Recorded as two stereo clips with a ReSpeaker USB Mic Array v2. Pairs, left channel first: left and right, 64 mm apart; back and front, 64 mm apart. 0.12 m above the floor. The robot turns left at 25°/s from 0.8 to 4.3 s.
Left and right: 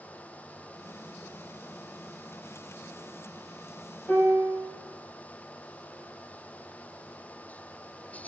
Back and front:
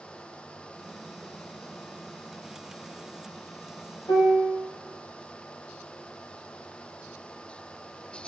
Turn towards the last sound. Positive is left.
turn(degrees=165)